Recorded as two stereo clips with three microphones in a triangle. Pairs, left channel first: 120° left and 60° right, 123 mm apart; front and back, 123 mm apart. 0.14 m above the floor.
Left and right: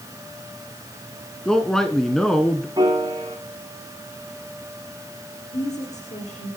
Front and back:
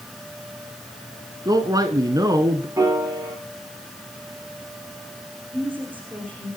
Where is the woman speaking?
105° left, 7.5 m.